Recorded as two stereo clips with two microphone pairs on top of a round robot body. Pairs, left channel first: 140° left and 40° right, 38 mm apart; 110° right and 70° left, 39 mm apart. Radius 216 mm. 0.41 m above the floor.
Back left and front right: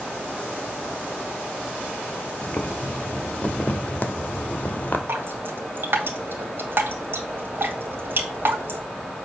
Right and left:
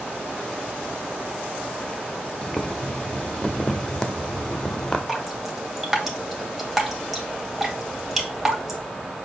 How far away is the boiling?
About 1.3 m.